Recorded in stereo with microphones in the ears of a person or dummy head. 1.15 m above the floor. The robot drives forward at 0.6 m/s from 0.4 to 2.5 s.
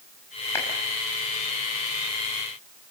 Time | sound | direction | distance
0.6 | a clap | 20° left (ahead or behind) | 6 m